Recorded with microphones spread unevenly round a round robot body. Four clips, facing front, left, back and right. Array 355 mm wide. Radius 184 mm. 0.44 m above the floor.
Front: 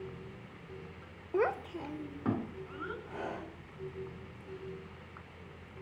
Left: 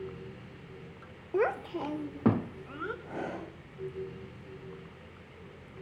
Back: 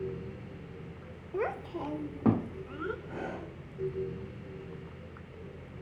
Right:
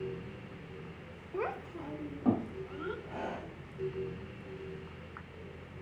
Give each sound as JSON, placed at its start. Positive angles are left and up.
{"t": 1.3, "sound": "a child speaking", "azimuth_deg": 50, "distance_m": 0.9}
{"t": 3.0, "sound": "breathing", "azimuth_deg": 130, "distance_m": 6.5}